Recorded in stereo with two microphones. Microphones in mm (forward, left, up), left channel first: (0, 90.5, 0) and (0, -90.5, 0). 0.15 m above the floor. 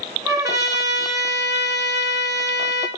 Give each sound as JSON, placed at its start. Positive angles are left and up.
{"t": 0.2, "sound": "a trumpet", "side_deg": -20, "distance_m": 3.0}